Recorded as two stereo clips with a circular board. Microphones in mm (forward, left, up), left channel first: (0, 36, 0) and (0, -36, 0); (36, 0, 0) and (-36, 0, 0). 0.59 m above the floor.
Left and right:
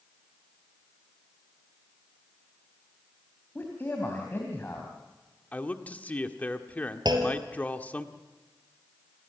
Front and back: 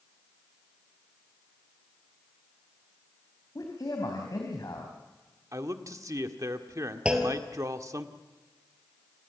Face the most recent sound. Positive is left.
turn(degrees=-105)